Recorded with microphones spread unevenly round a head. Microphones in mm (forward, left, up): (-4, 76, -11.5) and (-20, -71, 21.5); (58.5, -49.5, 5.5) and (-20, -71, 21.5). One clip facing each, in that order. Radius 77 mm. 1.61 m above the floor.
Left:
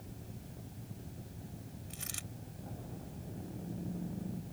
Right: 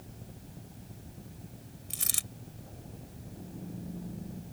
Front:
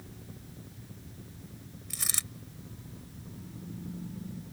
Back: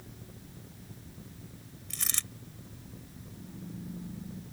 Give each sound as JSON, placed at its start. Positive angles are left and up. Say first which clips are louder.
{"t": 1.9, "sound": "a dropped coin", "louder": "right 1 dB, even", "azimuth_deg": -70}